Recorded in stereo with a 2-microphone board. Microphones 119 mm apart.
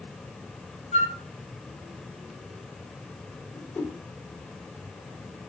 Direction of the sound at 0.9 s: 65° left (ahead or behind).